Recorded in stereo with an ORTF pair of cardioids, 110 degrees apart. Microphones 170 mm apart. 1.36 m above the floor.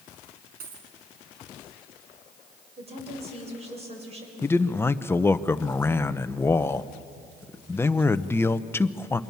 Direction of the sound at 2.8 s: 40° right.